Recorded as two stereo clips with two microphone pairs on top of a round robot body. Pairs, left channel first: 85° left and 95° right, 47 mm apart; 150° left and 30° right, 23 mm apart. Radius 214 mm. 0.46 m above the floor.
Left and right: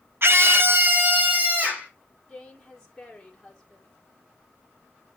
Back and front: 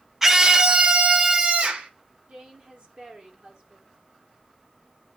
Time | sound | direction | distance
0.2 | a scream | 90° right | 1.4 m
2.3 | a woman speaking | straight ahead | 3 m